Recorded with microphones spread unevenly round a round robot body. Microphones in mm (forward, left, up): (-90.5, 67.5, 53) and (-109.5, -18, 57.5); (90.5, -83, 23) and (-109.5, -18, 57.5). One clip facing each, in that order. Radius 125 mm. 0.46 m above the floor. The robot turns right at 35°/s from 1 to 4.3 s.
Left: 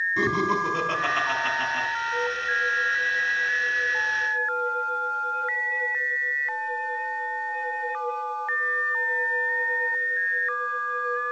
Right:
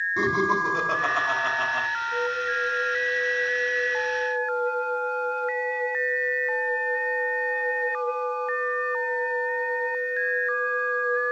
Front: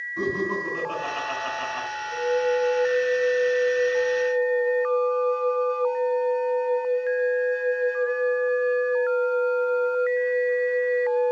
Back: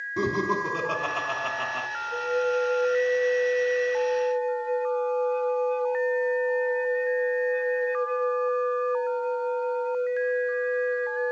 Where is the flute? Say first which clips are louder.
Right 2 dB, front 3 dB; 135° right, 3 m; by 11.3 s 55° right, 3 m.